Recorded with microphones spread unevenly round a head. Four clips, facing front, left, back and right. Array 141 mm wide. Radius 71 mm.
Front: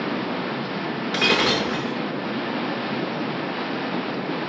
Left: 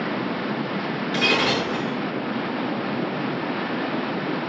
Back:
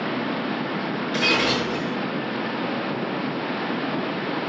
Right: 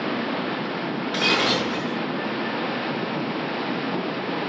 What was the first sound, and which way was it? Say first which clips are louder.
Breaking glass: left 1 dB, front 2 dB; straight ahead.